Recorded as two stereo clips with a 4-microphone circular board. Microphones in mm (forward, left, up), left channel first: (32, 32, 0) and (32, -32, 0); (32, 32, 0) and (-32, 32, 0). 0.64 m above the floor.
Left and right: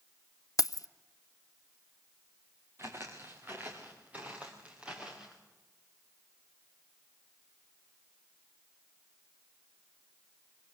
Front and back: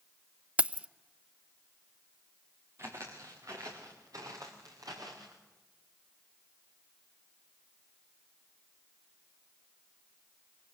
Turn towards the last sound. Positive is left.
turn(degrees=-170)